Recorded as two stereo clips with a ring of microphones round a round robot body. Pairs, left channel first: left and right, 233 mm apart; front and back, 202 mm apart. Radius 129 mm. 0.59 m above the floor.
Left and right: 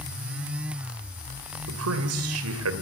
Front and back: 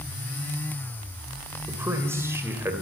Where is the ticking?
No ticking in this recording.